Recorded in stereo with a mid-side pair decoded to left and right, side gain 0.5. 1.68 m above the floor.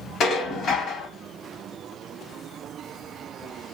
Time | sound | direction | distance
0.2 | dishes clattering | 60° left | 3.5 m